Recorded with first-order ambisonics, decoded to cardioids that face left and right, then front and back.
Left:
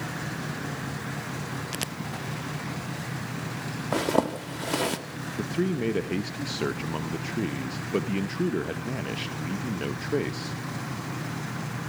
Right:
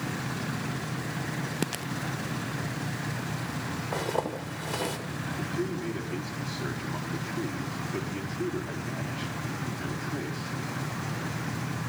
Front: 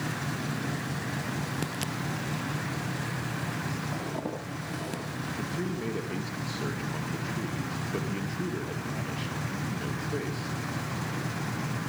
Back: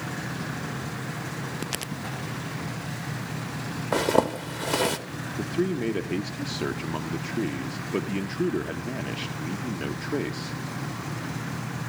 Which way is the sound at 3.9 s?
145° left.